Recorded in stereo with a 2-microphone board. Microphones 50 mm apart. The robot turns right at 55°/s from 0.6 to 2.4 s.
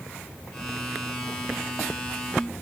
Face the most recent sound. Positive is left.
No sound to turn to.